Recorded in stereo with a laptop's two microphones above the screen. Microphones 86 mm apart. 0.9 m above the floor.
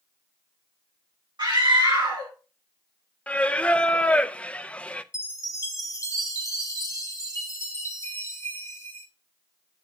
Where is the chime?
35° left (ahead or behind), 1.3 m.